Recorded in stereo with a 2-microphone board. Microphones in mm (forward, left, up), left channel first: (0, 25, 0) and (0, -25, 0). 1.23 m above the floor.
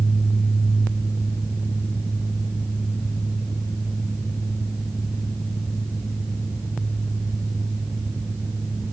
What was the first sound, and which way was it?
Only background noise.